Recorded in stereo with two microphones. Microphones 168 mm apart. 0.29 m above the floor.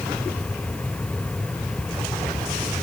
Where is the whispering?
I don't hear whispering.